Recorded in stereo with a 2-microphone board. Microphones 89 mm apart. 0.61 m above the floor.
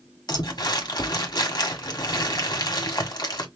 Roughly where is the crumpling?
Left.